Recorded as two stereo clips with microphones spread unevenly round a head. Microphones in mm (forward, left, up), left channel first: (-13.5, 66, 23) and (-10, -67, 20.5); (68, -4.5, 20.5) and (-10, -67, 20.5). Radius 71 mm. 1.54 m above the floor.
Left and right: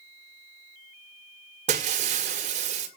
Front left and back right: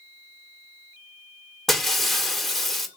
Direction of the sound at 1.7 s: 50° right.